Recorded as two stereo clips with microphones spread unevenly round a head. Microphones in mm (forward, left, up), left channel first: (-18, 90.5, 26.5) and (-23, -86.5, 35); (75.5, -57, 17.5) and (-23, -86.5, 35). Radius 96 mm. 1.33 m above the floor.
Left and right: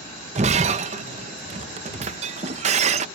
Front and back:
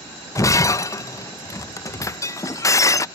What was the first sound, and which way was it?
Breaking glass, 45° right.